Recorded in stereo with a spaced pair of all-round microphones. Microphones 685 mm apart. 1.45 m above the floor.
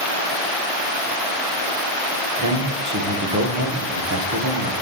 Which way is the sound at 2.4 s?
30° right (ahead or behind).